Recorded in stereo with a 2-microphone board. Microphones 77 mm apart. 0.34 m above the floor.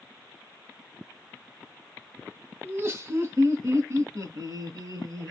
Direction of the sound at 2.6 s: 30° right (ahead or behind).